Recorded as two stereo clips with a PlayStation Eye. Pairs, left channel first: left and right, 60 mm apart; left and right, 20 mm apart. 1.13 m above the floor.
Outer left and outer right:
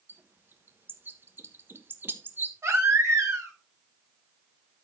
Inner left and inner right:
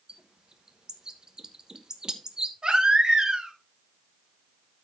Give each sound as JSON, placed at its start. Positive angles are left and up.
{"t": 0.1, "sound": "a bird", "side_deg": -35, "distance_m": 1.1}
{"t": 2.6, "sound": "a baby crying", "side_deg": -55, "distance_m": 3.0}